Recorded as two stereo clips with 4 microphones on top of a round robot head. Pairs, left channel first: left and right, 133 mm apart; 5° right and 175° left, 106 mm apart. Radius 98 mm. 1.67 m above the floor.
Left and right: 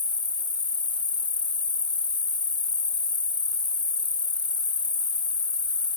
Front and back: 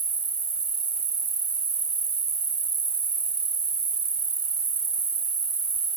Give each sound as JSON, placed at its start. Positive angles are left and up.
{"t": 0.0, "sound": "an insect", "azimuth_deg": 140}